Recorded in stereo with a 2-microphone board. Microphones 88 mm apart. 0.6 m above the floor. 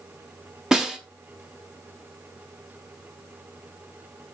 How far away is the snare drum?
About 0.8 m.